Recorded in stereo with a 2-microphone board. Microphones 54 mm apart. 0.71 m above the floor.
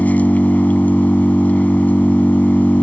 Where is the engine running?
30° left (ahead or behind).